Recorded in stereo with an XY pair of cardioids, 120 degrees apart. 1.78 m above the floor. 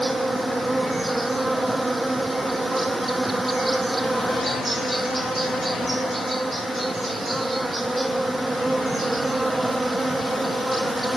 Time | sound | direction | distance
0.0 | an insect | 10° right | ?